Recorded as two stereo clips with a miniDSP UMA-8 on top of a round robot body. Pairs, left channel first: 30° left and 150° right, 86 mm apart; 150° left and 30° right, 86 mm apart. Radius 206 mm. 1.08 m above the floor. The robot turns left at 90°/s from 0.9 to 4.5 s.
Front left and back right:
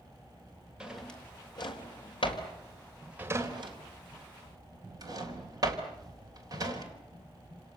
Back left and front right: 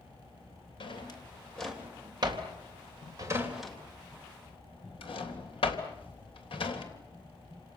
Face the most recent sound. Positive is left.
turn(degrees=165)